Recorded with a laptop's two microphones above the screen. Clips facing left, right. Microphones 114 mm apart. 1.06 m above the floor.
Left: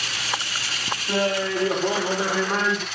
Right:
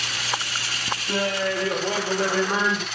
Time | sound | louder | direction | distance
1.1 | laughter | left 2 dB | 35° left (ahead or behind) | 1.1 m